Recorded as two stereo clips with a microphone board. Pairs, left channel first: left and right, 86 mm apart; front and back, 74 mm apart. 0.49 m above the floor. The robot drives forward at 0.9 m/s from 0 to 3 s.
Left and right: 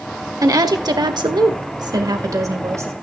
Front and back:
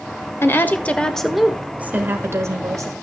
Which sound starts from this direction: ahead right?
A woman speaking, at 0.4 s.